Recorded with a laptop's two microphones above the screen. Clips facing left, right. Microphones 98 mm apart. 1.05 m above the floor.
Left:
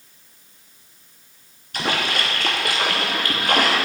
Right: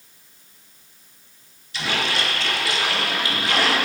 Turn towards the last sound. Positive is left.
turn(degrees=50)  # may be behind; listen again after turning